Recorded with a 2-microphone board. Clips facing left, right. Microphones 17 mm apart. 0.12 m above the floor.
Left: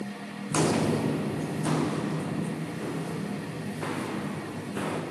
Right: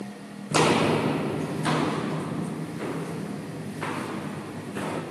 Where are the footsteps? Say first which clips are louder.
Right 4 dB; 65° right (ahead or behind), 0.5 m; by 5.0 s 25° right (ahead or behind), 4 m.